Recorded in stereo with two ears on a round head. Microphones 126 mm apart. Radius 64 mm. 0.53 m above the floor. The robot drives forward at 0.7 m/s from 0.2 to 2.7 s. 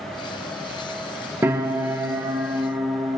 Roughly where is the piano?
Centre.